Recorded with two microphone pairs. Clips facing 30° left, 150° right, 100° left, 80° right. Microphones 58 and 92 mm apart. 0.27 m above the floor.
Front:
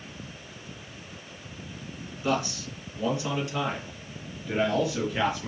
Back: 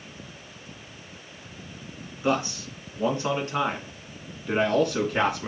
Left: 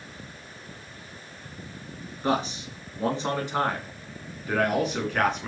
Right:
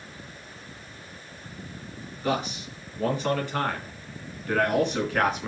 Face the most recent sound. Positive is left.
turn(degrees=-165)